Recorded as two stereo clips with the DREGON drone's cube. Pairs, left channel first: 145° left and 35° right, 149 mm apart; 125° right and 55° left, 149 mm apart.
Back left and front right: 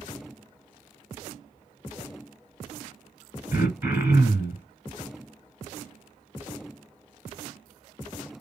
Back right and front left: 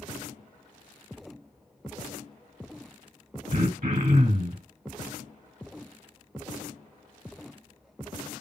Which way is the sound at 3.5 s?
35° left.